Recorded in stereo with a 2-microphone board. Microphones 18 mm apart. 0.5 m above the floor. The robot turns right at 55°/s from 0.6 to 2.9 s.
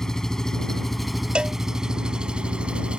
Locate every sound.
0.0 s an engine running: 150° left; by 3.0 s 80° right
1.4 s a cowbell: 80° right; by 1.6 s 75° right (ahead or behind)